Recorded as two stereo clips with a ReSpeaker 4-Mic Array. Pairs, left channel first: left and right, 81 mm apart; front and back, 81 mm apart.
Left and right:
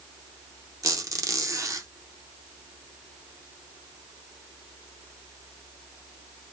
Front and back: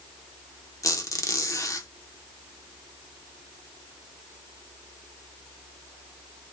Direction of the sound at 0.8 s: 45° right.